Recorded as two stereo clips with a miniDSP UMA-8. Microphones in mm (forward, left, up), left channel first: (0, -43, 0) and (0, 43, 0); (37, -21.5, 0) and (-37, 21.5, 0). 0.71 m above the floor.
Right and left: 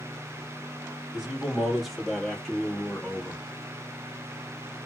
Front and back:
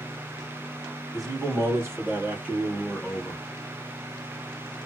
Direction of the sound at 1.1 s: 170° left.